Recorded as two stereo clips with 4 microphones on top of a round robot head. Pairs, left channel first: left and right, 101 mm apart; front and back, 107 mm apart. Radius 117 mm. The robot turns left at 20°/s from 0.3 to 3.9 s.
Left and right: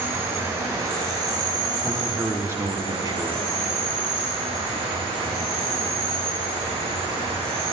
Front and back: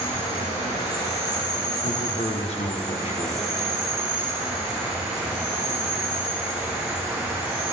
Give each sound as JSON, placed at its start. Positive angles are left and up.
{"t": 0.0, "sound": "an insect", "azimuth_deg": -25, "distance_m": 4.0}
{"t": 1.8, "sound": "a man speaking", "azimuth_deg": -10, "distance_m": 1.1}